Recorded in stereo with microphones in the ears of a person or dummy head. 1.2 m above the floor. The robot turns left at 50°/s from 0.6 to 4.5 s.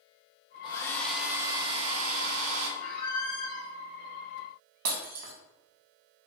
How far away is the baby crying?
No baby crying in this recording.